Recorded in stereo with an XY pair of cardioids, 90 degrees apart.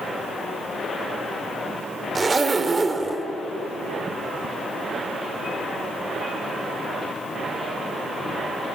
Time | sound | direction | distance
2.1 | a zipper | 30° right | 1.9 m